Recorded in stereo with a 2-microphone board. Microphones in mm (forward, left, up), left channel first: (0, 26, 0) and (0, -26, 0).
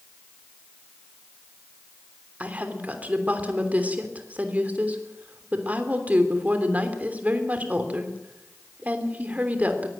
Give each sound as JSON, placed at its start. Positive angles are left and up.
{"t": 2.4, "sound": "a woman speaking", "side_deg": -30, "distance_m": 3.0}